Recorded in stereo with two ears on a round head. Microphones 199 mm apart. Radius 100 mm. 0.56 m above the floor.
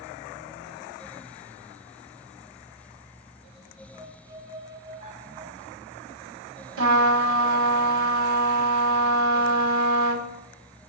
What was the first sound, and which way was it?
A violin, 35° right (ahead or behind).